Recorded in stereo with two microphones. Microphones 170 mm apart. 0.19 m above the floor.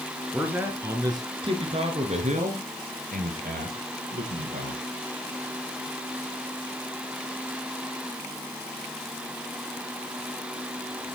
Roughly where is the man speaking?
Centre.